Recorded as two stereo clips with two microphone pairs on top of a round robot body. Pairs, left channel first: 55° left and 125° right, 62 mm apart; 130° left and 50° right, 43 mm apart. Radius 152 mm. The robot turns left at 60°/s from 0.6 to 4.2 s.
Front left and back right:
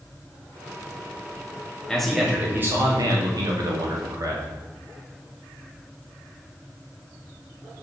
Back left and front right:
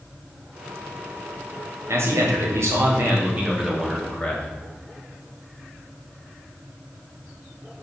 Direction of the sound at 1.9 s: 25° right.